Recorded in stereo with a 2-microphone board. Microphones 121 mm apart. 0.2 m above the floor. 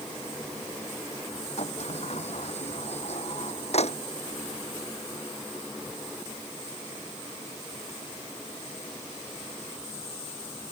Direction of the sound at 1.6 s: 65° left (ahead or behind).